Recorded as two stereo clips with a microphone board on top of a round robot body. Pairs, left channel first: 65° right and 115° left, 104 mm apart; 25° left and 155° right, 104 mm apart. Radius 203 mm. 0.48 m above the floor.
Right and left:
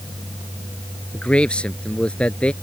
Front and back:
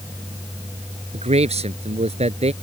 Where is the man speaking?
150° right.